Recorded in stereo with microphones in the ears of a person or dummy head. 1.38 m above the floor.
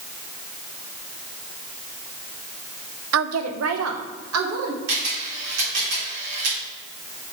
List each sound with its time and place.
3.1 s a woman speaking: 75° right (ahead or behind), 0.6 m
4.9 s a camera shutter: 75° right (ahead or behind), 3 m